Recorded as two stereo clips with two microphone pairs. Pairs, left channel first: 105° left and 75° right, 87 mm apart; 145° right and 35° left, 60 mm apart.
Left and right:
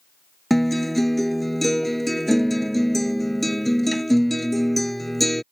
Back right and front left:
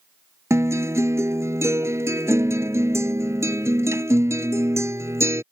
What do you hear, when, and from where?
0.5 s a guitar: 15° left